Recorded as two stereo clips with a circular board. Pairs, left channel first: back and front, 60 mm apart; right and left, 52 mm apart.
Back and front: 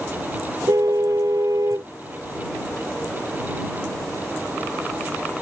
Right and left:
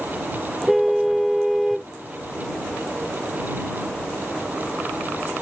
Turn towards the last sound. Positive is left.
turn(degrees=0)